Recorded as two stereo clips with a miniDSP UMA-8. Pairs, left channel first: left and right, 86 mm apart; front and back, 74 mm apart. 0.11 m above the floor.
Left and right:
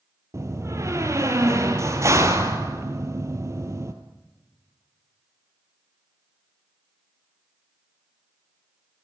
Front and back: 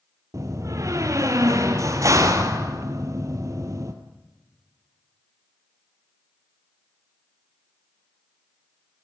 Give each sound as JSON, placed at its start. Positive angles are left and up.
{"t": 0.3, "sound": "a door slam", "azimuth_deg": -140, "distance_m": 1.7}